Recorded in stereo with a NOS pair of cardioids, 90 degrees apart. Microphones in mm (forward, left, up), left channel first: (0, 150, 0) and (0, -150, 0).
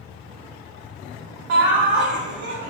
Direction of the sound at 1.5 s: 40° right.